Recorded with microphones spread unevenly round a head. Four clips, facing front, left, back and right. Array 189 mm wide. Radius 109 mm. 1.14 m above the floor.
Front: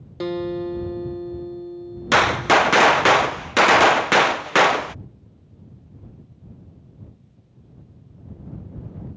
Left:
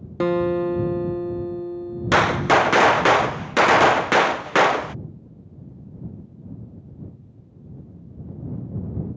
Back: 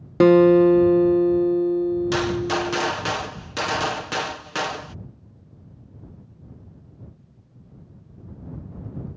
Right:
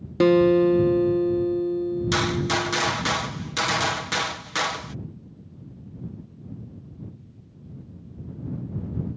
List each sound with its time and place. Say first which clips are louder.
0.2 s a guitar: right 4 dB, back 13 dB; 160° right
2.1 s a gunshot: left 7 dB, front 6 dB; 40° left